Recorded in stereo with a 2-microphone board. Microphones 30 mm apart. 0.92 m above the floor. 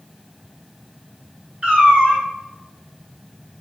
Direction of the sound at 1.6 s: 40° right (ahead or behind).